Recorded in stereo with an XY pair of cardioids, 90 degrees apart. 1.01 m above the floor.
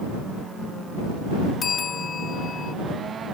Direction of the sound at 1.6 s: 60° left.